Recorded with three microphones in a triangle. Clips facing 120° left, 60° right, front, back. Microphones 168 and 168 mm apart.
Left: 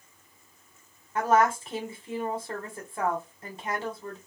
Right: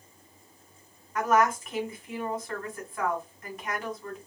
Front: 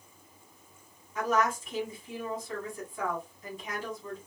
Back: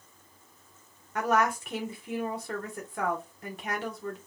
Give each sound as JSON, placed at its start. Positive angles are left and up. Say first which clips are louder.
{"t": 1.1, "sound": "a woman speaking", "louder": "left 1 dB, back 2 dB", "azimuth_deg": 180, "distance_m": 1.2}